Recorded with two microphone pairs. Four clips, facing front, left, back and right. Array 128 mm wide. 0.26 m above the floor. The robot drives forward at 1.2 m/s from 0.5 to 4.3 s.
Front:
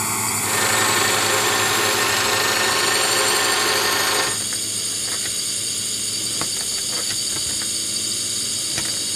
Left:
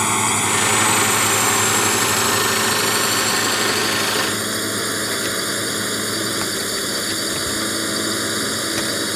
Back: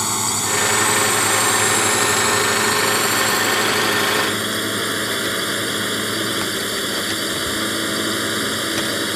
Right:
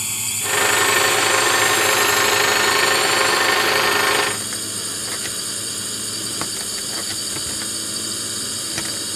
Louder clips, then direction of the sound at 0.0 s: Left 13 dB, back 2 dB; 100° left.